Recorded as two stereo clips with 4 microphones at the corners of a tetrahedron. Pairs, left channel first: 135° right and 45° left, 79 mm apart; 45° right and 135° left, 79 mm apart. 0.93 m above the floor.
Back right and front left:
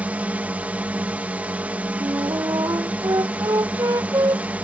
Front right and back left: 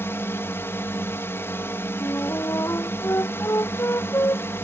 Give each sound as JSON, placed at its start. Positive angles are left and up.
{"t": 0.0, "sound": "a drone", "azimuth_deg": -15}
{"t": 2.0, "sound": "a flute", "azimuth_deg": 5}